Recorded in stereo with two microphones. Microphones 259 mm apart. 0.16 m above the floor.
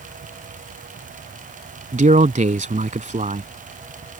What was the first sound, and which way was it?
A man speaking, 30° right (ahead or behind).